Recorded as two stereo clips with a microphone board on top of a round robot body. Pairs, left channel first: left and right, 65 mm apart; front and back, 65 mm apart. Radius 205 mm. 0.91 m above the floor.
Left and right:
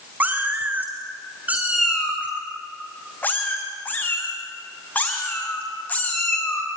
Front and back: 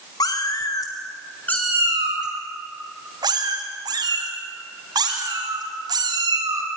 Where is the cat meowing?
25° right, 1.2 m; by 6.7 s 155° left, 3.5 m.